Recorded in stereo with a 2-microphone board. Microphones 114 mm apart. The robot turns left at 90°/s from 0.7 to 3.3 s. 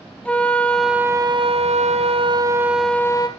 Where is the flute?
10° left, 1.0 m; by 3.3 s 140° left, 1.0 m.